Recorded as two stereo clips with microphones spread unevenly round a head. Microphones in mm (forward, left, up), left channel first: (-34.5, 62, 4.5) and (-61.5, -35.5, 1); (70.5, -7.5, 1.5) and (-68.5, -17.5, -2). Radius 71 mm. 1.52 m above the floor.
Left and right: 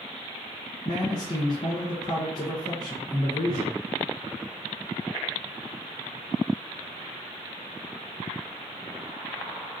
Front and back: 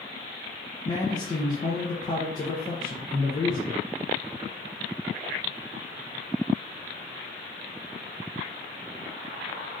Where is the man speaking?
45° left, 0.6 m.